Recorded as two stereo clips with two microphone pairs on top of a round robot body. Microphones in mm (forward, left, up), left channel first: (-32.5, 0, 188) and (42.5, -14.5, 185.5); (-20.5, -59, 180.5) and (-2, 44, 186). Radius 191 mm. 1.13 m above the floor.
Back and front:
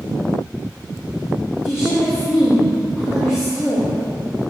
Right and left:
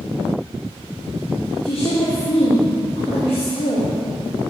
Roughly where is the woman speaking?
Behind right.